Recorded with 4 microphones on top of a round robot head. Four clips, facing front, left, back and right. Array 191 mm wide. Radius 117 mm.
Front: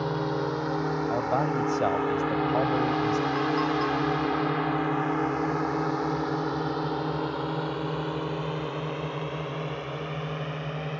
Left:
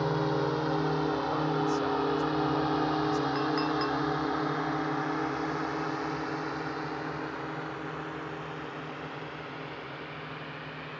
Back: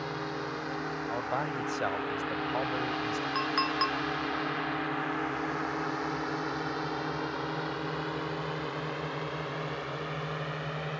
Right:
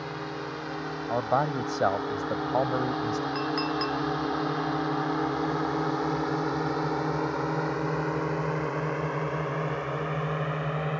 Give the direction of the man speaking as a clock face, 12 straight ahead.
2 o'clock.